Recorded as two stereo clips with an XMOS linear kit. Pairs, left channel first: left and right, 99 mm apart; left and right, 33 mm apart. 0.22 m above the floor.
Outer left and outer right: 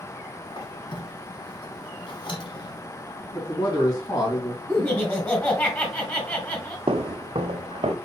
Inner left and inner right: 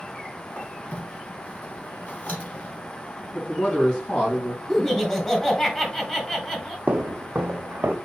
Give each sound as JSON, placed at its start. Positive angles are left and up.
{"t": 0.5, "sound": "a squeak", "side_deg": 55, "distance_m": 1.3}
{"t": 3.3, "sound": "a man speaking", "side_deg": 40, "distance_m": 2.5}
{"t": 4.7, "sound": "laughter", "side_deg": 15, "distance_m": 1.8}
{"t": 6.9, "sound": "footsteps", "side_deg": -60, "distance_m": 0.5}